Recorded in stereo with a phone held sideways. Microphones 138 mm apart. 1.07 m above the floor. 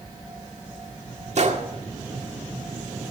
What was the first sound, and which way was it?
A gunshot, 55° right (ahead or behind).